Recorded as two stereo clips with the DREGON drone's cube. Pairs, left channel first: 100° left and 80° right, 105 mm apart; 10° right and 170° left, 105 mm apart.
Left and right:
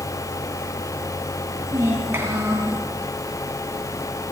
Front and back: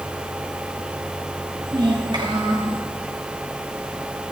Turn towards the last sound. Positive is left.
turn(degrees=-145)